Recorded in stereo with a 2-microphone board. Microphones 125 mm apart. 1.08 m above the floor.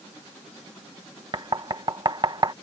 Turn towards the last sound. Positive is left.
turn(degrees=-35)  # may be behind; listen again after turning